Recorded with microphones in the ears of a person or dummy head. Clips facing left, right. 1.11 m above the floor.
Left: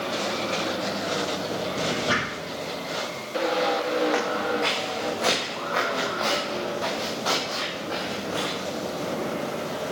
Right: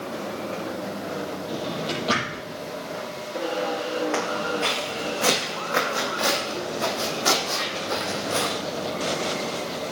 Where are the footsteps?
5° left (ahead or behind), 4 m; by 8.6 s 50° right (ahead or behind), 3.5 m.